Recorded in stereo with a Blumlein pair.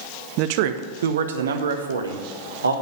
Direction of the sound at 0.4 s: 40° right.